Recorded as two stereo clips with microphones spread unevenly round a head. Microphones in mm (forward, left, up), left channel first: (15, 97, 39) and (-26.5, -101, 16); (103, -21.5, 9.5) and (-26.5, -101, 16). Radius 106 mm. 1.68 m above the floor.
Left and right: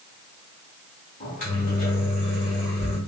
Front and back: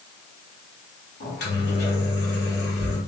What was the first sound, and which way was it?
A microwave, 30° left.